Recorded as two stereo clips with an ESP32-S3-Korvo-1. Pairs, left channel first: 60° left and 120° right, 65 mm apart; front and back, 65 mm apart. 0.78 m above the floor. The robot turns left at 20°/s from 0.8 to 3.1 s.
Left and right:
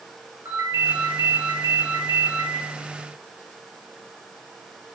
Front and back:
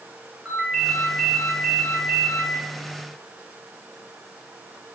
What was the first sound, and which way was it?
A ringtone, 100° right.